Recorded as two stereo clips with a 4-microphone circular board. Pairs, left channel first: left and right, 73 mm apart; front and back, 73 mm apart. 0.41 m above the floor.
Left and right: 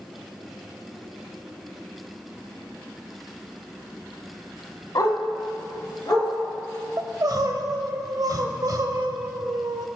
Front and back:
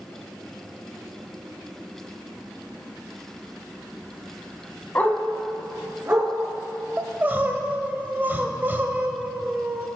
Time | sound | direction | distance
5.0 | a dog barking | 60° left | 0.9 m
7.0 | crying | 120° right | 0.6 m